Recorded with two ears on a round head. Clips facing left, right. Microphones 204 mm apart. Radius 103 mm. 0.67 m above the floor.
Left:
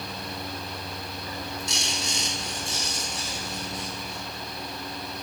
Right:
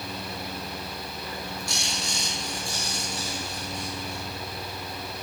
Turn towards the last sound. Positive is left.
turn(degrees=20)  # may be behind; listen again after turning